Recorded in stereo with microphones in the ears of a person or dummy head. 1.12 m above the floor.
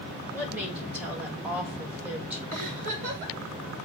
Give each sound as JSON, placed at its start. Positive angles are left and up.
{"t": 0.3, "sound": "a woman speaking", "side_deg": -10, "distance_m": 2.0}
{"t": 2.5, "sound": "a giggle", "side_deg": -40, "distance_m": 2.5}